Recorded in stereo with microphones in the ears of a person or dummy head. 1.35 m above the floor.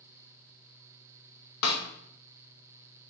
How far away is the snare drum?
About 0.8 m.